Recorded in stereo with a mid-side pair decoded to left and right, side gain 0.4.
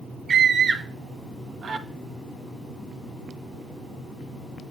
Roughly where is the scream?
Ahead right.